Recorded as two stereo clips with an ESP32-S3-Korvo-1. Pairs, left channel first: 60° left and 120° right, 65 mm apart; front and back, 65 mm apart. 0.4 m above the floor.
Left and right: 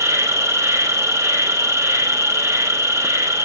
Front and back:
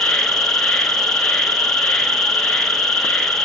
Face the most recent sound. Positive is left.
turn(degrees=-85)